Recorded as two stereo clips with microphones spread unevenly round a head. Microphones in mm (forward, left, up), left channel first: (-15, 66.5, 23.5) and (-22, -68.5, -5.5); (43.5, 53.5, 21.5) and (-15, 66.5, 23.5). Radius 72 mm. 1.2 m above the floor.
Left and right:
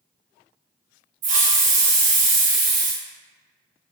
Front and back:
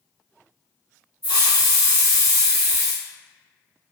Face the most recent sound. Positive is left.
turn(degrees=-125)